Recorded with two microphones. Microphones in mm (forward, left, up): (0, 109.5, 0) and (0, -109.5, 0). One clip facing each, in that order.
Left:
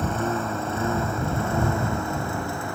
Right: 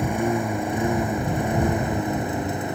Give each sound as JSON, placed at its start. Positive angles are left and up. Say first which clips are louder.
{"t": 0.0, "sound": "a lawn mower", "louder": "right 3 dB", "side_deg": -15}